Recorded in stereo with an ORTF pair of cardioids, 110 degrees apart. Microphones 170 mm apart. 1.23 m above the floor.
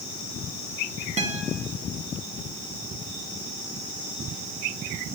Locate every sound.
1.2 s a guitar: 45° right, 1.8 m